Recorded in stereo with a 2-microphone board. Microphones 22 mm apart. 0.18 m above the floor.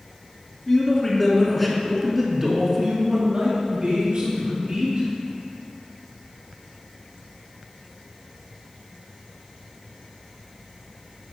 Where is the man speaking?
20° left (ahead or behind), 2 m; by 5.1 s 60° right (ahead or behind), 3 m.